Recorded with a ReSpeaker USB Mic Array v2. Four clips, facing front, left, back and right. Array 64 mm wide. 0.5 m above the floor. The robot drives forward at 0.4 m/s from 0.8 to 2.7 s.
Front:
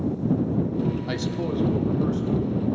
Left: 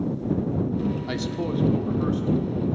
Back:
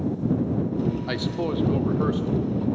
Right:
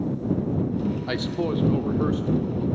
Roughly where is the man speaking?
Behind right.